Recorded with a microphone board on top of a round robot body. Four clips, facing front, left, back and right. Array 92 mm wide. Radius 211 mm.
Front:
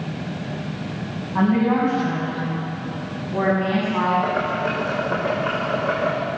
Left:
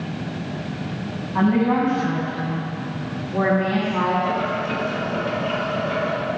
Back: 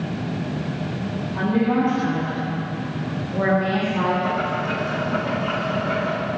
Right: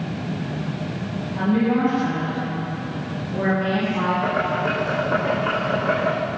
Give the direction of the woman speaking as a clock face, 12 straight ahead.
10 o'clock.